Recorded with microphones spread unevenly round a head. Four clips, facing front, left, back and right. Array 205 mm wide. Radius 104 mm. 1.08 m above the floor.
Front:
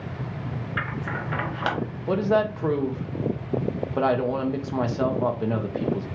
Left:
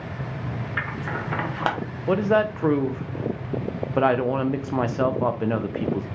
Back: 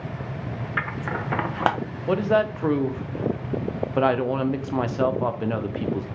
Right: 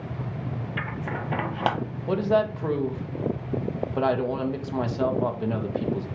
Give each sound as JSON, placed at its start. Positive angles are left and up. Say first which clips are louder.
{"t": 0.8, "sound": "scissors", "louder": "left 3 dB, back 2 dB", "azimuth_deg": 175, "distance_m": 0.8}
{"t": 2.1, "sound": "a woman speaking", "louder": "left 2 dB, back 1 dB", "azimuth_deg": 95, "distance_m": 0.6}